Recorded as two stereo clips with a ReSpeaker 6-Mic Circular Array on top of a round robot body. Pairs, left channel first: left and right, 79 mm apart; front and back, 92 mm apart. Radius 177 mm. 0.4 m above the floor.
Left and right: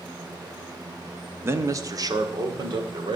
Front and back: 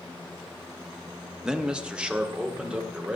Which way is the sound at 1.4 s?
105° right.